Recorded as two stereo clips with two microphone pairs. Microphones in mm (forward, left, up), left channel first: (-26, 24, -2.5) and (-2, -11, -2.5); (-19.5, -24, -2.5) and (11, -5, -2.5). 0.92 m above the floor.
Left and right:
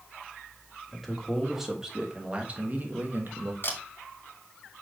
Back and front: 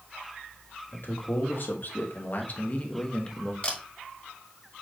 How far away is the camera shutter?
About 1.3 m.